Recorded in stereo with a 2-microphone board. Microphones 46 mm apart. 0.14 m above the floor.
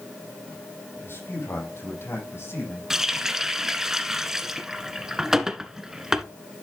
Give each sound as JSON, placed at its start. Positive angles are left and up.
{"t": 0.9, "sound": "a man speaking", "side_deg": 60, "distance_m": 6.0}
{"t": 2.9, "sound": "a running tap", "side_deg": -10, "distance_m": 1.1}